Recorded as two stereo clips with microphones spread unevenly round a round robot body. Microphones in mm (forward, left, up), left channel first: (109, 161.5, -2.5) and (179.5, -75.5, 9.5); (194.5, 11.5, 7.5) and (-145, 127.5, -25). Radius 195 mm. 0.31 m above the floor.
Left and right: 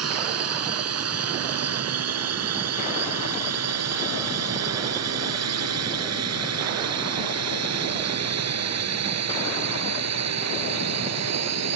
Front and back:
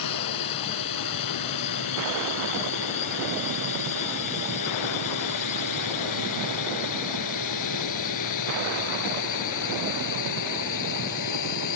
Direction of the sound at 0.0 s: 60° right.